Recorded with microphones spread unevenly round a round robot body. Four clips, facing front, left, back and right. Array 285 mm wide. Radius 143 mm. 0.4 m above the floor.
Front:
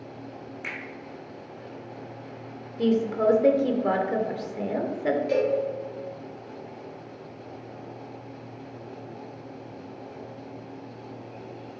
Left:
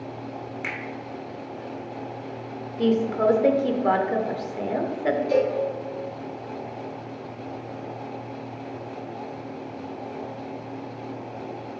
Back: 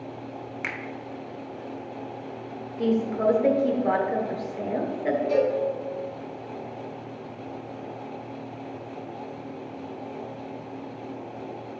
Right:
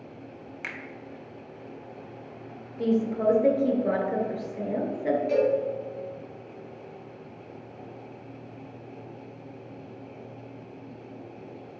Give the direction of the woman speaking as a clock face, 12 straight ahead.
10 o'clock.